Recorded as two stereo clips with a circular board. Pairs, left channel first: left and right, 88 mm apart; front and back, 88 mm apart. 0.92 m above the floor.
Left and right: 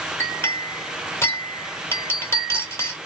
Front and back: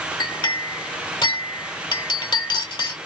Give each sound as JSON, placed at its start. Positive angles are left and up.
{"t": 0.2, "sound": "a clink", "azimuth_deg": 30, "distance_m": 1.6}